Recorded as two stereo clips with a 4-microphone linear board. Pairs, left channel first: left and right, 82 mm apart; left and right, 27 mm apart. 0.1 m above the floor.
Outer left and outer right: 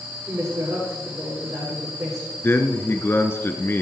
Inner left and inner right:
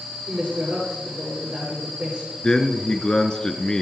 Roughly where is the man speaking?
Left.